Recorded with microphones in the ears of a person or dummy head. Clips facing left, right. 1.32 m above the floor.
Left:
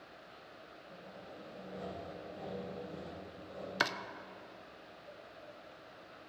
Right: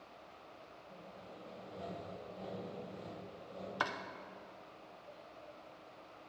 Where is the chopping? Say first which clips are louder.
Left 3 dB; 25° left (ahead or behind), 0.5 m.